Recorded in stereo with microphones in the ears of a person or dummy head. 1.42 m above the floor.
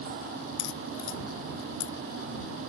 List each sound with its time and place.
0.6 s a crack: 85° left